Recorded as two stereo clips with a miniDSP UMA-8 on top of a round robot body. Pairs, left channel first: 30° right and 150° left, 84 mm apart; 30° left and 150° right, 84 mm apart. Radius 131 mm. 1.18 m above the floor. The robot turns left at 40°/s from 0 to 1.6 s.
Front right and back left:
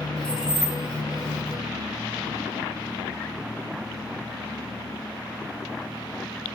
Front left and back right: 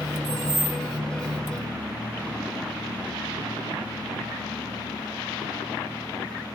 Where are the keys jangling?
105° right, 3 m; by 0.8 s 125° right, 3 m.